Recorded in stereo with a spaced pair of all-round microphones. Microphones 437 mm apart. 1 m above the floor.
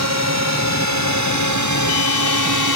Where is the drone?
35° right (ahead or behind); by 2.8 s 45° right (ahead or behind).